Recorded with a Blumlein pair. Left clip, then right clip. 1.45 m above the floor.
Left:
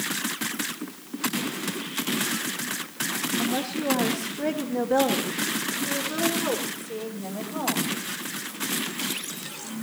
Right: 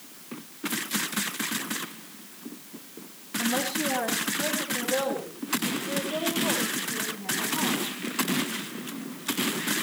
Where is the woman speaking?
Straight ahead, 2.5 m; by 7.9 s 60° left, 6.5 m.